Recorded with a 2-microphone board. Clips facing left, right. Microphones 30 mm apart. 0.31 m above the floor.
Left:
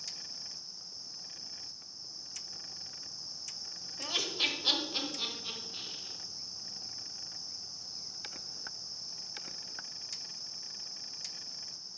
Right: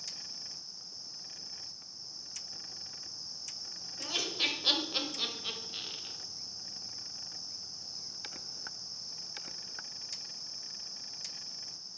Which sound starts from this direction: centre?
Laughter, at 4.0 s.